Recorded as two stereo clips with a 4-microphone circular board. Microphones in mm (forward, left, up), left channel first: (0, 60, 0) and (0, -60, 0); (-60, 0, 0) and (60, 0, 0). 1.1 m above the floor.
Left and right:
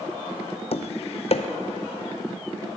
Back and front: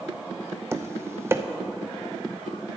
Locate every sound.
0.7 s tapping: 65° left, 0.7 m